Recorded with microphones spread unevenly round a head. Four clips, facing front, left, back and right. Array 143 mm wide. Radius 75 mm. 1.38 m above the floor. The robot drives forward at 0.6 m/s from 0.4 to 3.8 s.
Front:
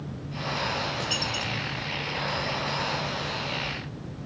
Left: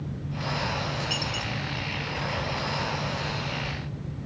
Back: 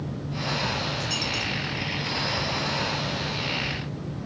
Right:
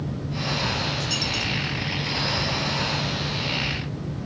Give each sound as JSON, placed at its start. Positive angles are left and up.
{"t": 1.0, "sound": "a dropped coin", "azimuth_deg": -10, "distance_m": 3.5}